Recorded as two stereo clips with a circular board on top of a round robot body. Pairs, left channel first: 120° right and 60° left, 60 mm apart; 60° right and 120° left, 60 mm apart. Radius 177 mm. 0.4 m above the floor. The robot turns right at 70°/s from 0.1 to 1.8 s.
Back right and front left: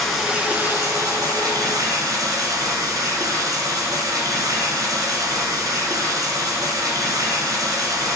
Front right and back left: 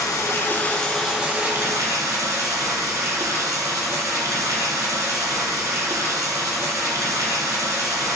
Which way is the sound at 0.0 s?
30° right.